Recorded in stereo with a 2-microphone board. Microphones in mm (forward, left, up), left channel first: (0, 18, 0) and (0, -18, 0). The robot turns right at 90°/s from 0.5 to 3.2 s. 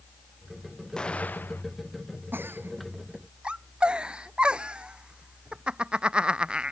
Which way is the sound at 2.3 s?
70° right (ahead or behind).